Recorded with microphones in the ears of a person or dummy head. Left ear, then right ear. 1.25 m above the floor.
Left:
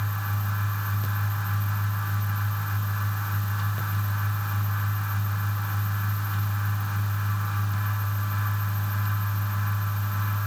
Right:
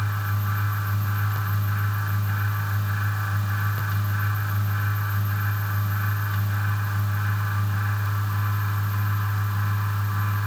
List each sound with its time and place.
Only background noise.